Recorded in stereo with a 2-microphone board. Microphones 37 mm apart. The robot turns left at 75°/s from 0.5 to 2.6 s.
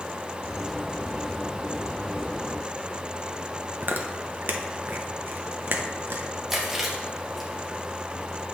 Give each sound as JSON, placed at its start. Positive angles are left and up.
{"t": 3.8, "sound": "chewing", "side_deg": -55, "distance_m": 0.6}
{"t": 6.5, "sound": "chewing", "side_deg": -10, "distance_m": 1.4}